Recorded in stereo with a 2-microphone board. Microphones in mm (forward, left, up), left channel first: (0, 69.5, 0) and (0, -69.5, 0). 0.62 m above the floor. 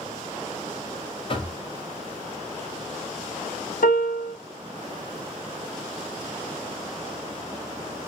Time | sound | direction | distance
1.3 | knocking | 40° left (ahead or behind) | 0.6 m
3.8 | a piano | 75° left (ahead or behind) | 0.6 m